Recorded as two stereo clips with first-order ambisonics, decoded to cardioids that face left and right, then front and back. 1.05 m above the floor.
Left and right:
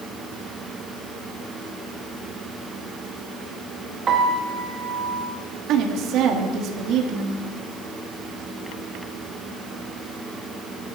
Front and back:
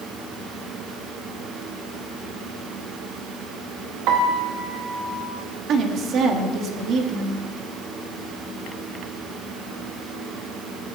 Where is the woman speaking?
130° right, 2 m.